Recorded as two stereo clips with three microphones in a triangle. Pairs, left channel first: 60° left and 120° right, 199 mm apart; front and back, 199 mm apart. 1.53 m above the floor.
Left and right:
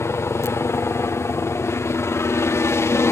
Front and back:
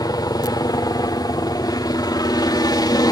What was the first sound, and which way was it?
A helicopter, 15° left.